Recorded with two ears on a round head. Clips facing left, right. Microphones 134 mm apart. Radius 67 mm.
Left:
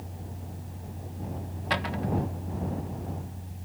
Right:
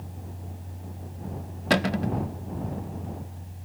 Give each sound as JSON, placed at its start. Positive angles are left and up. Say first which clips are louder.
{"t": 1.7, "sound": "a cupboard door", "louder": "right 5 dB", "side_deg": -55}